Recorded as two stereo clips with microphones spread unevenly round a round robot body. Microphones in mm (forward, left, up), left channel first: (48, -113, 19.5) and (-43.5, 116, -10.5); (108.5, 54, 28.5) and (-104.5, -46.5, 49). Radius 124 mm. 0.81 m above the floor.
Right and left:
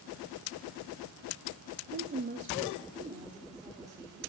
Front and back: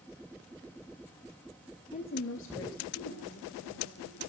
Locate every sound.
1.9 s a woman speaking: 80° left, 0.6 m; by 4.2 s 35° left, 2.5 m